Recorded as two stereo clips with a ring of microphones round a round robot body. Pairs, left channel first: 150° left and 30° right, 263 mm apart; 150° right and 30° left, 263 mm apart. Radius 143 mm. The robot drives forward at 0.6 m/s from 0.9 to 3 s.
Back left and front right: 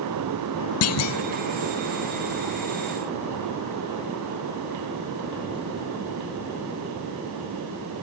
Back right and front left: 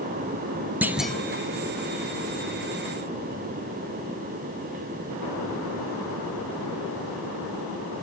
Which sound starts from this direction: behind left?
A clunk, at 0.8 s.